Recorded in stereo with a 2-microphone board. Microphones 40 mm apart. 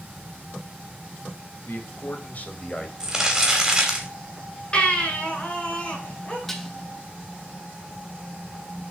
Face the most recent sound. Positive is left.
turn(degrees=10)  # may be behind; listen again after turning